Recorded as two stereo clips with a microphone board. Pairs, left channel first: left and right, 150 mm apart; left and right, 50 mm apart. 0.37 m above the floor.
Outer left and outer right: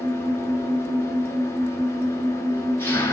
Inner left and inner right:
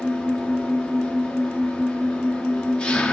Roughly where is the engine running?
Centre.